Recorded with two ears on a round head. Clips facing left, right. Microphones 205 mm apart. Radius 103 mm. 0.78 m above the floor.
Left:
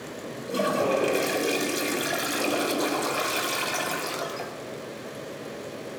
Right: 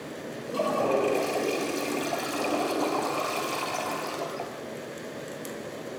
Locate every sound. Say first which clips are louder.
0.5 s a toilet flushing: left 1 dB; 20° left (ahead or behind), 4 m